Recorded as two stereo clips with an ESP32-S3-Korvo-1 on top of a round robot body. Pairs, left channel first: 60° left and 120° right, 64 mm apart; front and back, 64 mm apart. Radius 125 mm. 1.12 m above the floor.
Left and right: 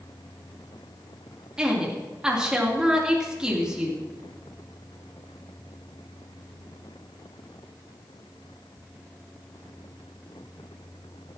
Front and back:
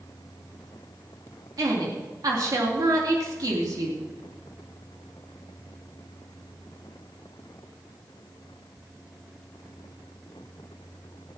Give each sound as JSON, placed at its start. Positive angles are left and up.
{"t": 1.6, "sound": "a woman speaking", "azimuth_deg": 165, "distance_m": 3.5}